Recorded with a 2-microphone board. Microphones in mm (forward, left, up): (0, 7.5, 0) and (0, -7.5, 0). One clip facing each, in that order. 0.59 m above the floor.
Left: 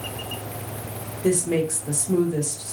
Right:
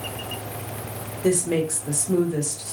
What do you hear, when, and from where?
1.2 s a woman speaking: 30° right (ahead or behind), 1.4 m